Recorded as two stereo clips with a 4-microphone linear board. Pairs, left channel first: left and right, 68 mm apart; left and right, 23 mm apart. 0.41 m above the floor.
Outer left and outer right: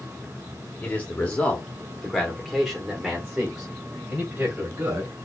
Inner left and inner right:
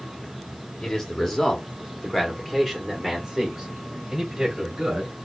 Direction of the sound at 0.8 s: 25° left (ahead or behind).